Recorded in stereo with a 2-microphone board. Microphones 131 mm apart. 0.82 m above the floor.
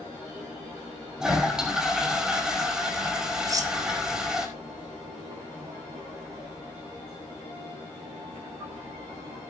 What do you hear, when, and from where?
1.2 s a toilet flushing: 5° right (ahead or behind), 5 m
3.5 s cutlery clinking: 25° right (ahead or behind), 1.3 m